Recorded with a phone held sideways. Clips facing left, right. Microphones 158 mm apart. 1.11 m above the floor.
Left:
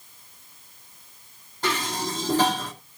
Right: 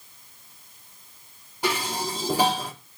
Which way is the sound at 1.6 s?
10° right (ahead or behind).